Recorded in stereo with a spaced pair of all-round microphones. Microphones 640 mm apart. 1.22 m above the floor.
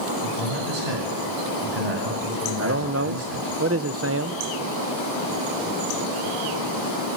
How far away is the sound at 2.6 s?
About 0.8 m.